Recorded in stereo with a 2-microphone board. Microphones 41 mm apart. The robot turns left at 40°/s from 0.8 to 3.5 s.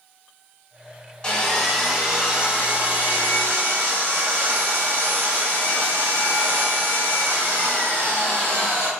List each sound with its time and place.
1.2 s sawing: 20° left, 1.5 m; by 8.9 s 70° right, 1.5 m